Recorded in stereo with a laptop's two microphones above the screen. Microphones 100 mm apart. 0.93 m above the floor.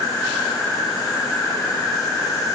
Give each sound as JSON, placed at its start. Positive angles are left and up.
{"t": 0.0, "sound": "an insect", "side_deg": 35, "distance_m": 1.5}